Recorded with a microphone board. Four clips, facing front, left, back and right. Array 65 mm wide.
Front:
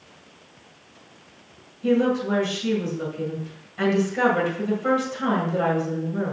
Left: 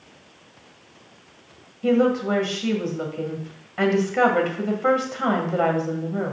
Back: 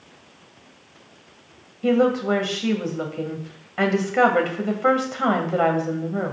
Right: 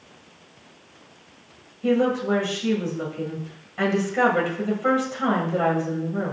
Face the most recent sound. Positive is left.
turn(degrees=160)